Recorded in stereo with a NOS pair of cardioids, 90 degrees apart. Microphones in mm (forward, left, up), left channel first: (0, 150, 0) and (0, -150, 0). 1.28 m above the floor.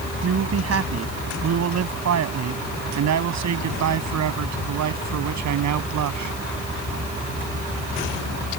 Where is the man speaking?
50° right; by 6.3 s 70° right.